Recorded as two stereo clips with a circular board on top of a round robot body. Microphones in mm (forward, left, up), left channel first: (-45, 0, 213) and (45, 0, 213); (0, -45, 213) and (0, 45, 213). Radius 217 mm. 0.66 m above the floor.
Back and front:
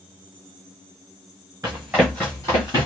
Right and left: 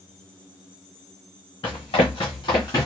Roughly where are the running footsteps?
Ahead right.